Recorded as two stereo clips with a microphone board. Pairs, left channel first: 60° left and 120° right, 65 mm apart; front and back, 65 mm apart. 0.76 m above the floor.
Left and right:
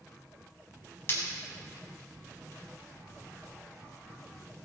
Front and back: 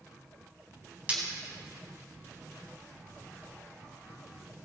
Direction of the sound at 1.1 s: 115° left.